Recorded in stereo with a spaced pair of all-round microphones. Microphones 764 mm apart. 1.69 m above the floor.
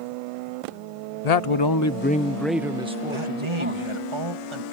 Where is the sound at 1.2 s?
60° left (ahead or behind); by 4.0 s 15° right (ahead or behind).